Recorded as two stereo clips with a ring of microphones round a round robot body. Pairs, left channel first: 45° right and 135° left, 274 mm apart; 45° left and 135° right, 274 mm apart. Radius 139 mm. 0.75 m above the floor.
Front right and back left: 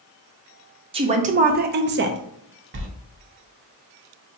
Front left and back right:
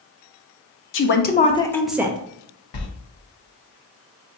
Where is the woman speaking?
70° left, 0.7 m; by 2.2 s 160° left, 0.6 m.